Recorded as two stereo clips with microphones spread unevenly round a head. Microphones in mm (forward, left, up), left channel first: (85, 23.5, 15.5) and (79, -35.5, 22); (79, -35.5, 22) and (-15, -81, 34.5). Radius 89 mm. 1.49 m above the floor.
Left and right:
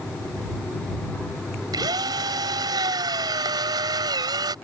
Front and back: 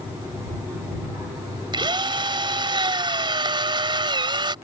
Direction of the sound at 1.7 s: 115° right.